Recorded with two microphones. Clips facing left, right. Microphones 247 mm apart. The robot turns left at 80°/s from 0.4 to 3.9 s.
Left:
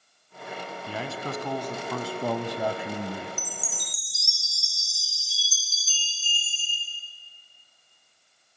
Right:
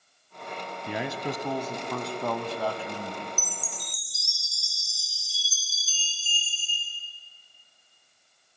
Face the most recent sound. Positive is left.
turn(degrees=80)